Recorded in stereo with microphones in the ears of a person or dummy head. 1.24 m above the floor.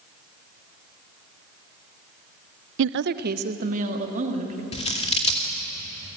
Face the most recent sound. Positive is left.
turn(degrees=30)  # may be behind; listen again after turning